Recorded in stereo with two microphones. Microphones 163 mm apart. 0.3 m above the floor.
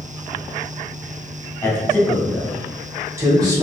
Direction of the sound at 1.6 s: 15° left (ahead or behind).